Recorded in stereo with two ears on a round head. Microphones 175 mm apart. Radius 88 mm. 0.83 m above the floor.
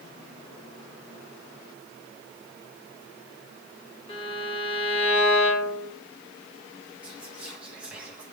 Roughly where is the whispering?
Centre.